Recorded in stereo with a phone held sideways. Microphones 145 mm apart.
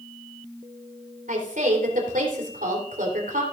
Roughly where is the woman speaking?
Right.